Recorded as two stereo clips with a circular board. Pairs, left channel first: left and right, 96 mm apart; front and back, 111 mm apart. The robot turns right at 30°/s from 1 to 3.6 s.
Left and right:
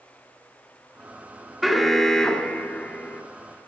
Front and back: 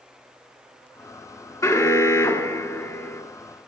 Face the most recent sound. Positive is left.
turn(degrees=55)